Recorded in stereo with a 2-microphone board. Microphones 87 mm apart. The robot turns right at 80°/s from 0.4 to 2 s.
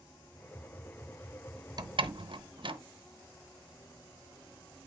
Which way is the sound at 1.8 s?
45° right (ahead or behind).